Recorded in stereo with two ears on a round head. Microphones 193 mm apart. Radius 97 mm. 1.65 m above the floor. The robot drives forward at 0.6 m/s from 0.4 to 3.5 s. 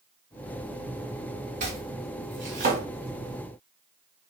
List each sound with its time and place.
1.6 s chopping: 35° right (ahead or behind), 2.5 m; by 2.8 s 40° right (ahead or behind), 2.0 m